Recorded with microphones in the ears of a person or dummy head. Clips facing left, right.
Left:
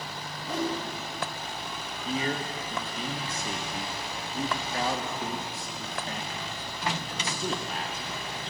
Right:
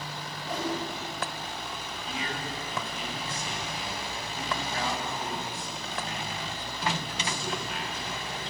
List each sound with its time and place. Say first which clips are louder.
0.4 s a whoosh: left 2 dB; centre (ahead or behind), 4.5 m
2.0 s a man speaking: left 6 dB; 35° left (ahead or behind), 1.2 m